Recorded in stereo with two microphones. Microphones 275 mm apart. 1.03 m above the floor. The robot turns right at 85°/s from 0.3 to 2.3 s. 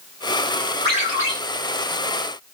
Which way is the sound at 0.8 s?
40° right.